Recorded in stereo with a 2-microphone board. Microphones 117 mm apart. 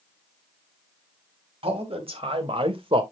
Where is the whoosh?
I don't hear a whoosh.